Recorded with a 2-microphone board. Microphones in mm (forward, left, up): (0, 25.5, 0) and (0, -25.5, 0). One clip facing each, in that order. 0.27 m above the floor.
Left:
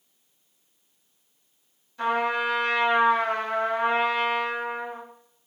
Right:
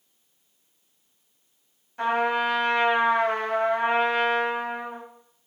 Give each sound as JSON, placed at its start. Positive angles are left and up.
{"t": 2.0, "sound": "a trumpet", "side_deg": -45, "distance_m": 1.2}